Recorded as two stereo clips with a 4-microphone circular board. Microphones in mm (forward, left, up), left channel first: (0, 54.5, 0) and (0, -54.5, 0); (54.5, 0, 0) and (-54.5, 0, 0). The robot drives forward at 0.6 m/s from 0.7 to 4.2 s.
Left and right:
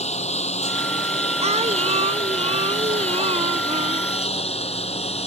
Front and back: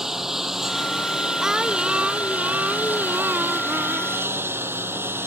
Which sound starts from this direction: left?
A lawn mower, at 0.0 s.